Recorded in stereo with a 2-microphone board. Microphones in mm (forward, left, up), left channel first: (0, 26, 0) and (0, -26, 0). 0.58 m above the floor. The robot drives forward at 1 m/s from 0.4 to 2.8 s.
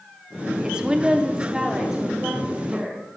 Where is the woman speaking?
20° right (ahead or behind), 0.6 m; by 3.0 s 5° right (ahead or behind), 2 m.